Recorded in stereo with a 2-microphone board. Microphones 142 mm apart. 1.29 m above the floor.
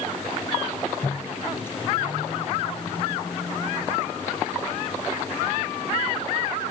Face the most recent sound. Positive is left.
turn(degrees=45)  # may be behind; listen again after turning